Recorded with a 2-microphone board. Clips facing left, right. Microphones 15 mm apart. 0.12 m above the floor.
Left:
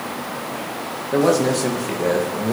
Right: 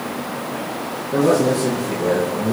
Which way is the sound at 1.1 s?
60° left (ahead or behind).